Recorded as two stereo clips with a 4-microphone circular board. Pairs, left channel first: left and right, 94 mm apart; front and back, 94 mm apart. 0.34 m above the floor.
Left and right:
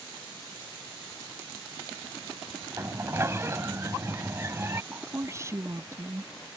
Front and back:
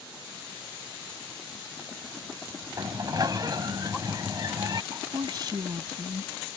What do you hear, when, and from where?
2.8 s a sliding door: 145° right
4.9 s a woman speaking: 145° right